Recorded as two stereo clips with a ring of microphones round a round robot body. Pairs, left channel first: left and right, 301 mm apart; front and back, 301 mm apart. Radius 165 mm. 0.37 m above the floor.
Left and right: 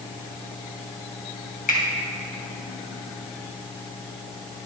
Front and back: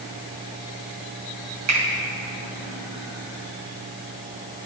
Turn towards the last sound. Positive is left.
turn(degrees=150)